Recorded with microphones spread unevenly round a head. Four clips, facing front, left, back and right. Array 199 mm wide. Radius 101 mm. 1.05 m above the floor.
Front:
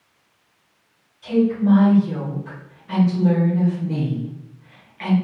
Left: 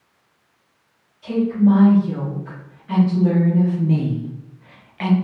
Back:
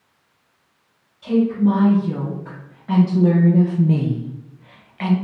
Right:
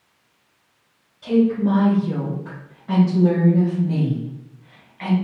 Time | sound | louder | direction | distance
1.2 | a woman speaking | even, back 1 dB | 120° right | 1.7 m